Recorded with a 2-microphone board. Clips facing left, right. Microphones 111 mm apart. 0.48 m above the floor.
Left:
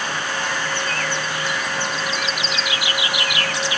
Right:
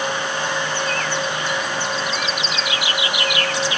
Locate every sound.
Only background noise.